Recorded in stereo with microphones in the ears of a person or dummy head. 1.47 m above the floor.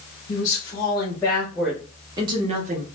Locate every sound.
0.3 s a woman speaking: 35° left (ahead or behind), 1.1 m; by 2.9 s 50° right (ahead or behind), 0.8 m